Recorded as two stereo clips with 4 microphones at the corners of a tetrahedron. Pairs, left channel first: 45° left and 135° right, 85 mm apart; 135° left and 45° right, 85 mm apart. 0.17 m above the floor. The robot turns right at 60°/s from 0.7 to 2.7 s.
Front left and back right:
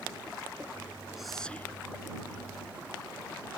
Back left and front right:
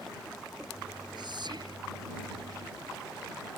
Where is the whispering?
50° right; by 1.8 s 15° right.